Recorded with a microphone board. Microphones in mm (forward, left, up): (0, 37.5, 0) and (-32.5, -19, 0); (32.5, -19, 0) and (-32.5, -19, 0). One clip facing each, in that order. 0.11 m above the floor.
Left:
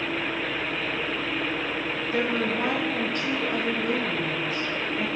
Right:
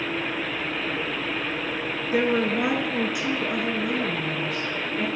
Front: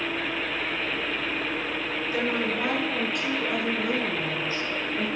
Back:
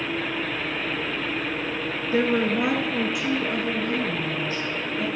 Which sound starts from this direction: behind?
A woman speaking, at 2.1 s.